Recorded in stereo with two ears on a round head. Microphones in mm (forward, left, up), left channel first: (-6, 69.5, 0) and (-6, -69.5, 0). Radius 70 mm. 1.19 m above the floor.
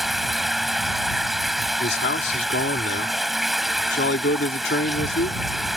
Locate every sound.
0.0 s running water: centre (ahead or behind)
1.8 s a man speaking: 80° left